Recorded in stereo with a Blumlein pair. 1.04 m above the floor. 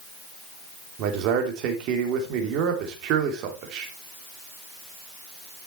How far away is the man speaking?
About 3 m.